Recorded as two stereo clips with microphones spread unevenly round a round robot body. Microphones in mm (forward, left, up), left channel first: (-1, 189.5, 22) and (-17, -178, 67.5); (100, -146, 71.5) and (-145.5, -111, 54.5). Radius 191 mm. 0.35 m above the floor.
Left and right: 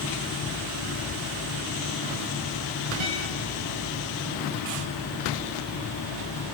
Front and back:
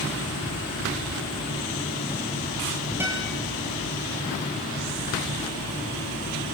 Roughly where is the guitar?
Right.